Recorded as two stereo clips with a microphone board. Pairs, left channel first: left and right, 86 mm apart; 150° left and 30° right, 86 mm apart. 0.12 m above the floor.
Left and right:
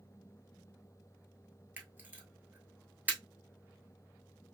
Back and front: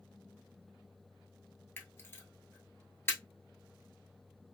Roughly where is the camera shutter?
Behind right.